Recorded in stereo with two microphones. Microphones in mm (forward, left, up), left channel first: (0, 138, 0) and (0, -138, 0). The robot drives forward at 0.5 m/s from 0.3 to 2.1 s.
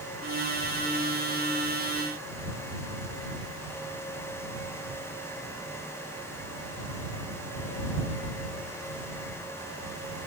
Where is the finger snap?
No finger snap in this recording.